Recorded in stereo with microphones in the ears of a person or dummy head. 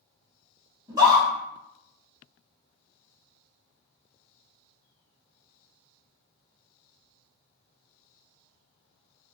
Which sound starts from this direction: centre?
A scream, at 0.9 s.